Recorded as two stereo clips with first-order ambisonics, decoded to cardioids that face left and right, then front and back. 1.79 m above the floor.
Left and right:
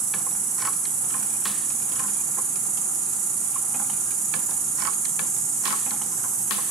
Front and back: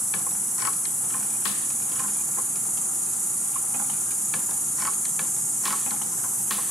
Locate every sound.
0.0 s an insect: 100° right, 0.8 m